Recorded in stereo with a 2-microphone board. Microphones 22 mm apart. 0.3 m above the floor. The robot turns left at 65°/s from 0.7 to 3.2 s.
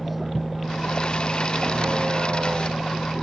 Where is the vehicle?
5° right; by 3.2 s 165° right.